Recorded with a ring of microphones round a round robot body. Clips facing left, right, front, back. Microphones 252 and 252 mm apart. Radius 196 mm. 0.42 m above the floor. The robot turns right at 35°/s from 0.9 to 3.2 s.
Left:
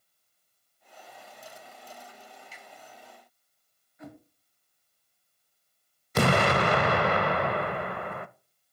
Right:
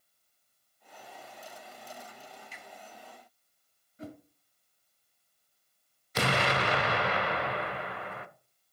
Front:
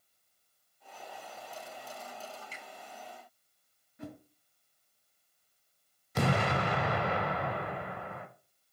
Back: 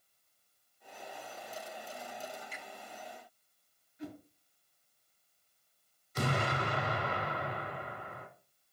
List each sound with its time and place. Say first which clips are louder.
2.5 s a finger snap: even, back 1 dB; 60° right, 4 m; by 2.6 s 55° right, 4 m
4.0 s a whoosh: right 2 dB, back 1 dB; 35° right, 1.8 m
6.2 s an explosion: left 6 dB, front 4 dB; 45° left, 0.6 m